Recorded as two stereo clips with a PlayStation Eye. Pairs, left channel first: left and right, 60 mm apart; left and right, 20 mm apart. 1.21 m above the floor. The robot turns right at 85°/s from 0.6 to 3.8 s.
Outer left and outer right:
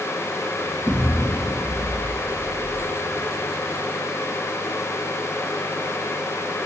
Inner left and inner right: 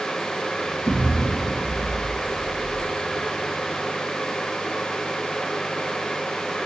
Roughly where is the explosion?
Ahead.